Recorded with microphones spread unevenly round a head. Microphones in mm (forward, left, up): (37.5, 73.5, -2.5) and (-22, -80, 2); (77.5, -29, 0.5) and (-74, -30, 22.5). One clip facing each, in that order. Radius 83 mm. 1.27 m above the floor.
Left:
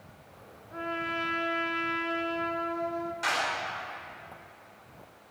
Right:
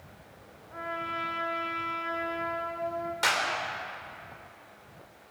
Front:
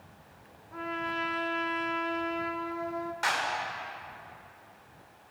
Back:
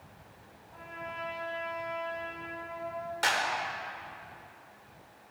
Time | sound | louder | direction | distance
0.7 | a trumpet | left 3 dB, front 8 dB | 15° left | 1.3 m
3.2 | a clap | right 1 dB, back 3 dB | 135° right | 4.5 m